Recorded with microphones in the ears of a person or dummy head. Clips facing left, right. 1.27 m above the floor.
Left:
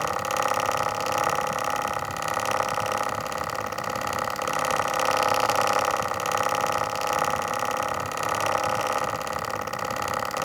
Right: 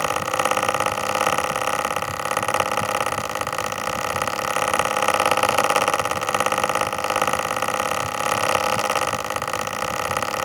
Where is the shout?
No shout in this recording.